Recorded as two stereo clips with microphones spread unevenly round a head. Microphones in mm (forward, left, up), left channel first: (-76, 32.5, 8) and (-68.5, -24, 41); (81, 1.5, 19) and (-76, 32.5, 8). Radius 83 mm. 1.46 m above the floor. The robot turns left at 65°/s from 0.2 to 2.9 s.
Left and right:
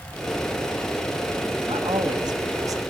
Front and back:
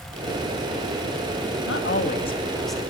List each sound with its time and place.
1.7 s a man speaking: 30° right, 3 m; by 2.8 s 105° right, 3 m